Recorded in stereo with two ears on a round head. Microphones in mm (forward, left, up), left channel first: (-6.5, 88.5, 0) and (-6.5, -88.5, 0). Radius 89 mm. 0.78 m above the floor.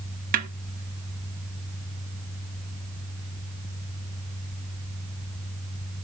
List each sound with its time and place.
0.3 s a snare drum: 45° right (ahead or behind), 0.9 m